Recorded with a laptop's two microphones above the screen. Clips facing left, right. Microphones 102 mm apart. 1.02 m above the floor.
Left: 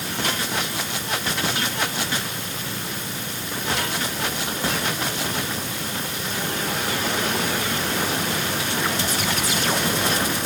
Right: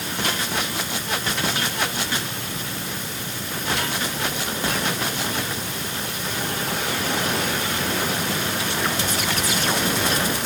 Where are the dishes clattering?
No dishes clattering in this recording.